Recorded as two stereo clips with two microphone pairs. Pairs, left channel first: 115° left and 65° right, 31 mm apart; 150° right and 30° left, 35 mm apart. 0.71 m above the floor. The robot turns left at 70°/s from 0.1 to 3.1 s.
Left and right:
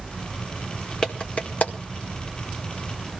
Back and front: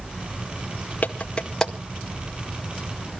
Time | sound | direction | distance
1.0 | a clap | 175° left | 1.9 m